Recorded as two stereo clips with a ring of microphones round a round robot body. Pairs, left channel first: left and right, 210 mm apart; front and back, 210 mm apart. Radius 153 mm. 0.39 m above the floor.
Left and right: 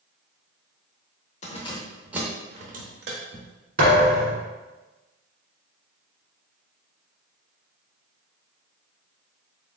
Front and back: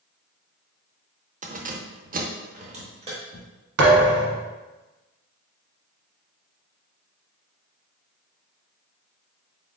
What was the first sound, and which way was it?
Keys jangling, 135° left.